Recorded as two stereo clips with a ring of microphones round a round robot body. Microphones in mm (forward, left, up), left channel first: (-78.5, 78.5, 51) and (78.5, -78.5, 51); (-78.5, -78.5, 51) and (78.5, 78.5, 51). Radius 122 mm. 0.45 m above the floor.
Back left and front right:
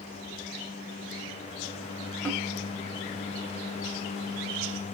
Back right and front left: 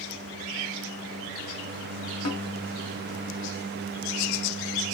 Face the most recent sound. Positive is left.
turn(degrees=-140)